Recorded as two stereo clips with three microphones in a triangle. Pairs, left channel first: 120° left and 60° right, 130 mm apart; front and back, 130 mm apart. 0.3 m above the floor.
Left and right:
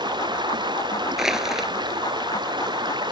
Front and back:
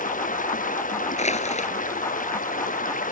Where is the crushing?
25° left.